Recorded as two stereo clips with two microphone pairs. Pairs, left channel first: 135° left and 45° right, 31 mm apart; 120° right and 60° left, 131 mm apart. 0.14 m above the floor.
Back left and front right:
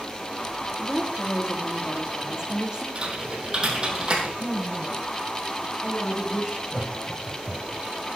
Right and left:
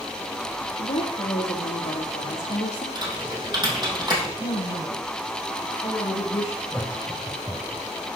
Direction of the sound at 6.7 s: 15° right.